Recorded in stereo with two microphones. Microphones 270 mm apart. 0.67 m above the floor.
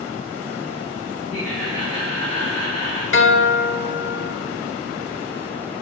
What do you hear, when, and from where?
1.3 s laughter: 60° left (ahead or behind), 3.5 m
3.1 s a guitar: 45° left (ahead or behind), 0.7 m